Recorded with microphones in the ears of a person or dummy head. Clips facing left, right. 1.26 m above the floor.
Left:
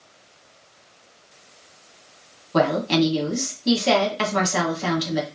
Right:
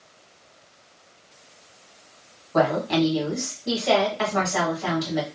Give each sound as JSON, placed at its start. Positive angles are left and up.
{"t": 2.5, "sound": "a woman speaking", "side_deg": 45, "distance_m": 1.4}